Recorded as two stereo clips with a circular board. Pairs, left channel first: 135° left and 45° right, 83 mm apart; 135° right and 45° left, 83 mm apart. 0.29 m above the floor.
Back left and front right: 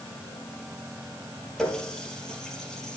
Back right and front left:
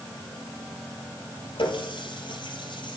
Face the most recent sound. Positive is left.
turn(degrees=-140)